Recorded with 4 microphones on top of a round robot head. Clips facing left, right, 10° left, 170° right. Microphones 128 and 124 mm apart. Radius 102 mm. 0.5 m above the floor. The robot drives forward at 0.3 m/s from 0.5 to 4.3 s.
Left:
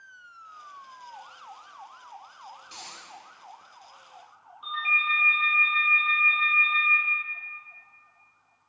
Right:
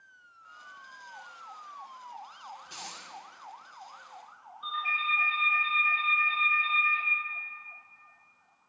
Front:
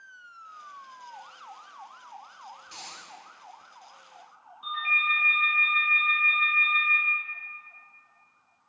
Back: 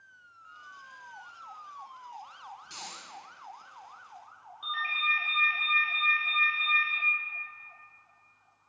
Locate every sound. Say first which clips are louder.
2.6 s a dropped coin: right 1 dB, even; 165° right, 1.7 m
4.6 s a ringtone: left 2 dB, front 3 dB; straight behind, 0.9 m